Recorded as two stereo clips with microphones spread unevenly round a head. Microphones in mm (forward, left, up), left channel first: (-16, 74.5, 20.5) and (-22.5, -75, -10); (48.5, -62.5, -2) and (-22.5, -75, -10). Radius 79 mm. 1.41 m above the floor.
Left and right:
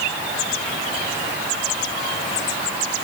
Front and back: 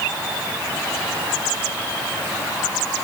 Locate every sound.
Only background noise.